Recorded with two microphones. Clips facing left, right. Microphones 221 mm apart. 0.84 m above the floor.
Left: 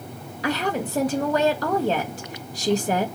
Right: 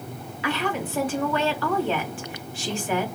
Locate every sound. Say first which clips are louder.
0.4 s a woman speaking: left 2 dB; 35° left (ahead or behind), 1.0 m